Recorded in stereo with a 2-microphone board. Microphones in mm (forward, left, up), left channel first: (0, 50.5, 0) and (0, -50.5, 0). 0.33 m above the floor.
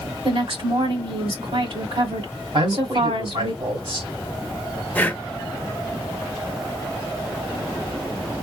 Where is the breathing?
15° left (ahead or behind), 0.6 m.